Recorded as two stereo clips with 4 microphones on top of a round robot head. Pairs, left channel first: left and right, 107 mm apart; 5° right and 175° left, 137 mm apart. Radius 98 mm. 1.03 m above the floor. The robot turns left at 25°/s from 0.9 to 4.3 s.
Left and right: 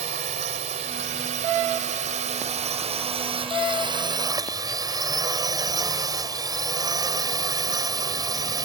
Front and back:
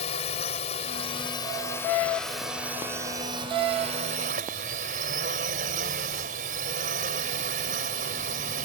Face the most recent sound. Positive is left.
turn(degrees=-145)